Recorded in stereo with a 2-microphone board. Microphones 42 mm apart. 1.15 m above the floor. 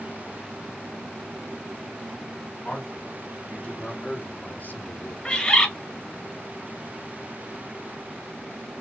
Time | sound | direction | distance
2.6 | a man speaking | 15° left (ahead or behind) | 1.7 m
5.2 | a bird | 20° left (ahead or behind) | 0.6 m